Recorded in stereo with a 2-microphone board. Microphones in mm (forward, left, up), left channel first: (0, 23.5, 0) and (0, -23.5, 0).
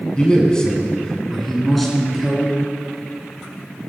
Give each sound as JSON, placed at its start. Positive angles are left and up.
{"t": 0.2, "sound": "a man speaking", "side_deg": 20, "distance_m": 1.7}